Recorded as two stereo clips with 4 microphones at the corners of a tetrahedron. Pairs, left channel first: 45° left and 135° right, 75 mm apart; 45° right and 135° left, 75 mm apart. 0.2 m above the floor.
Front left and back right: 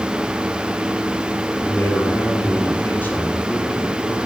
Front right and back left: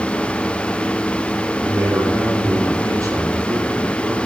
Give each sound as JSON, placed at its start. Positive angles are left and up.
{"t": 1.6, "sound": "a man speaking", "azimuth_deg": 105, "distance_m": 5.0}